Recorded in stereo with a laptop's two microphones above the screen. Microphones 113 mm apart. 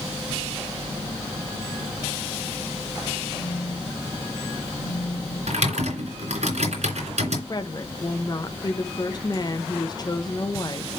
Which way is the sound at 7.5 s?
35° left (ahead or behind).